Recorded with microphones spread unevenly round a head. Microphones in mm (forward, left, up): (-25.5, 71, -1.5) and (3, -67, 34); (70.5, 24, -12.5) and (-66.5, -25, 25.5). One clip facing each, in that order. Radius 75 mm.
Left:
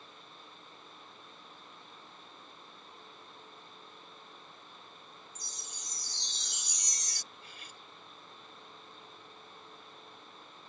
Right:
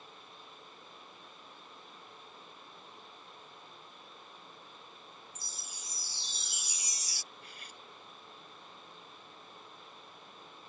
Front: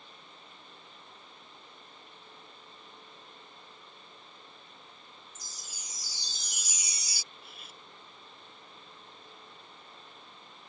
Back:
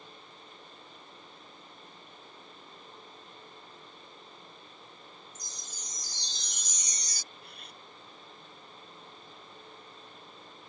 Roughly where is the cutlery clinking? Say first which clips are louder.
Even, back 1 dB; left.